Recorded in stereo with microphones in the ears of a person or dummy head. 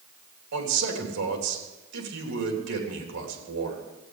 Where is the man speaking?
65° right (ahead or behind), 3.5 m.